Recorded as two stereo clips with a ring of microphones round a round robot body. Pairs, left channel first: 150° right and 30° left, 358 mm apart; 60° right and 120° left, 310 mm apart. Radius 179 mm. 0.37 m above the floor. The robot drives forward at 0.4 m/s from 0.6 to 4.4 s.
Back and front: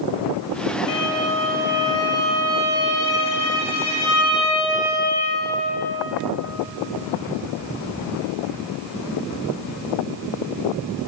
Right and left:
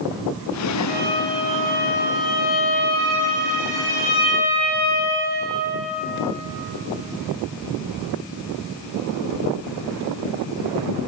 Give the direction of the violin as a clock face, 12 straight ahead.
4 o'clock.